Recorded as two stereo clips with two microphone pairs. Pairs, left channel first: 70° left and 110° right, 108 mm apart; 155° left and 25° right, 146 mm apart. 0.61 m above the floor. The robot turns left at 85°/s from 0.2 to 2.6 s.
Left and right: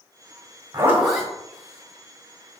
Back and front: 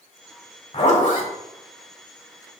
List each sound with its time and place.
0.7 s a zipper: 165° right, 1.7 m; by 1.3 s 145° left, 1.7 m